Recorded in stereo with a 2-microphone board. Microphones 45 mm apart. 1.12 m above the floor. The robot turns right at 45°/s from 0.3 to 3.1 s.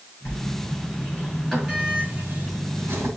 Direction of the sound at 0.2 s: 50° left (ahead or behind).